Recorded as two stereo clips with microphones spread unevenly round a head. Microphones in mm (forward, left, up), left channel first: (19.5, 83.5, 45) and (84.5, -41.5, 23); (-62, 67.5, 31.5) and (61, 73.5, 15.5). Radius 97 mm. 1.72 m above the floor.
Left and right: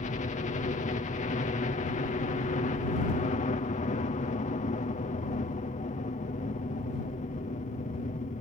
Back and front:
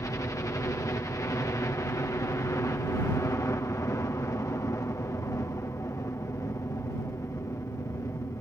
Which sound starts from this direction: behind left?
A helicopter, at 0.0 s.